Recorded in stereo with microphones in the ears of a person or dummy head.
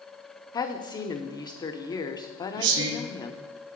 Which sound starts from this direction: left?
A woman speaking, at 0.5 s.